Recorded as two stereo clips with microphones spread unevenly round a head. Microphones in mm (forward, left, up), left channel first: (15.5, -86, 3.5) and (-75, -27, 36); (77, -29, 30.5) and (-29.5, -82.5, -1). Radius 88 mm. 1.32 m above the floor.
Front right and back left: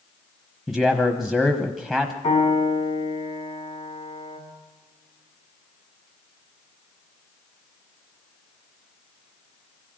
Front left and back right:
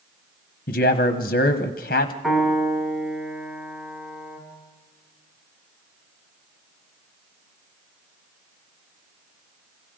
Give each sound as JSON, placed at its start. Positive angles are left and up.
{"t": 0.7, "sound": "a man speaking", "azimuth_deg": 50, "distance_m": 1.0}
{"t": 2.2, "sound": "a piano", "azimuth_deg": -65, "distance_m": 9.5}